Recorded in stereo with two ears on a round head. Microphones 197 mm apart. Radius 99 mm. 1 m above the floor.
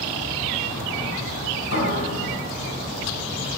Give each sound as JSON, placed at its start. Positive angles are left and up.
{"t": 1.7, "sound": "a piano", "side_deg": 65, "distance_m": 3.5}